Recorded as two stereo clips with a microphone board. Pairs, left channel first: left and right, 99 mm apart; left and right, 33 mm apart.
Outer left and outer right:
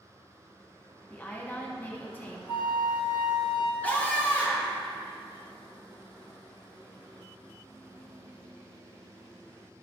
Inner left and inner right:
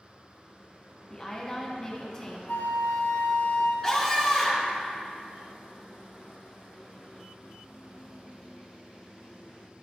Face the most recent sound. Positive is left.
turn(degrees=15)  # may be behind; listen again after turning